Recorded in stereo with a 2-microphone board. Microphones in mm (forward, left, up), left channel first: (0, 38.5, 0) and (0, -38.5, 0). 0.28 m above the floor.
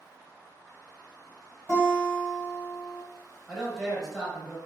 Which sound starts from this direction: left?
A guitar, at 1.7 s.